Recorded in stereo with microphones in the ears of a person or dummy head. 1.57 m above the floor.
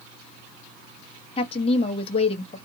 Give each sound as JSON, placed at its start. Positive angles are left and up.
{"t": 1.4, "sound": "a woman speaking", "side_deg": 30, "distance_m": 0.8}